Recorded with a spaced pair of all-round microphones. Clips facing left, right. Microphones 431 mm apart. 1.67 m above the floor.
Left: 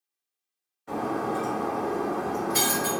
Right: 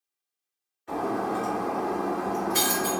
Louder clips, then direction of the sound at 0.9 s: Even; 60° left (ahead or behind).